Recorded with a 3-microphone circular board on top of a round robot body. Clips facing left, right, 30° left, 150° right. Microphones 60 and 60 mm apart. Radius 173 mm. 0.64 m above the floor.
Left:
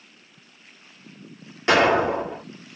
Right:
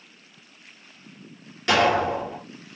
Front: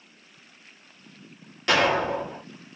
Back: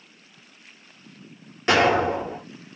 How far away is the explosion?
About 2.5 m.